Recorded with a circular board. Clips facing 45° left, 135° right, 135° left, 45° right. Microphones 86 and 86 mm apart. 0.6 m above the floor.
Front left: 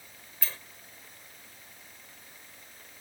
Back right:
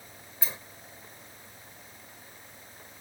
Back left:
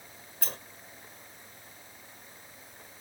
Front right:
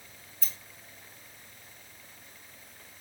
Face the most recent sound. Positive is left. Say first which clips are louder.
# back right 1 dB, back left 8 dB
turn(degrees=155)